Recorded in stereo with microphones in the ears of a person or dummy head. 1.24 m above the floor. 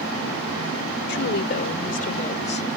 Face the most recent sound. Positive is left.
turn(degrees=35)  # may be behind; listen again after turning